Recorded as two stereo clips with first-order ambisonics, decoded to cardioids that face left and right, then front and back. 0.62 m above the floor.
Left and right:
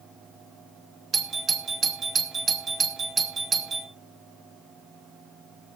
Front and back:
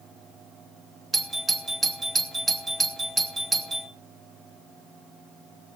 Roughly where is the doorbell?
Behind right.